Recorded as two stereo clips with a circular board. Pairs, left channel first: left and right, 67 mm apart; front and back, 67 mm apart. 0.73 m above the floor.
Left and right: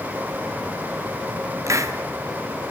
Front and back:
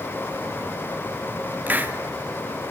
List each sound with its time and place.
1.7 s a hiss: 120° right, 1.4 m